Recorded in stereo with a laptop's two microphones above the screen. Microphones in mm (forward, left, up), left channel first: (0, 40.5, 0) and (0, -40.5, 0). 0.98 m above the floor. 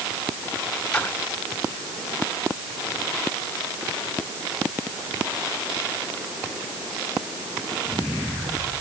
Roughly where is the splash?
Centre.